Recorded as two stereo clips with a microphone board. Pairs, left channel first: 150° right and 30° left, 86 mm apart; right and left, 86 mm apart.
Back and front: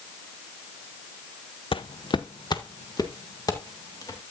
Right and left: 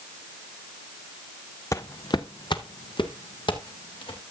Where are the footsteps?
145° right, 0.5 m; by 4.2 s 105° right, 2.5 m.